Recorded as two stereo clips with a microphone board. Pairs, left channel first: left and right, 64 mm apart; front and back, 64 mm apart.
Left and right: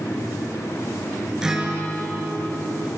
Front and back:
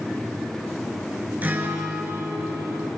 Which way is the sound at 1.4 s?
160° right.